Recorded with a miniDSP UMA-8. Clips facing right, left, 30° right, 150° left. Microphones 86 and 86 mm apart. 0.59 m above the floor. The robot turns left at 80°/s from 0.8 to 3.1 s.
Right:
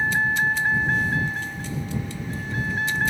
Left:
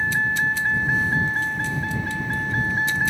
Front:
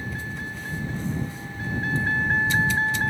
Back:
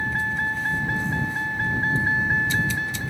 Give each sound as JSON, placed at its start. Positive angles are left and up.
{"t": 0.0, "sound": "a vehicle", "azimuth_deg": 180}